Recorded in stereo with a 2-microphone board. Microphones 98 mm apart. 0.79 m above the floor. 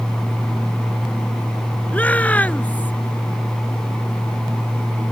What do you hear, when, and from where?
1.9 s a shout: 15° left (ahead or behind)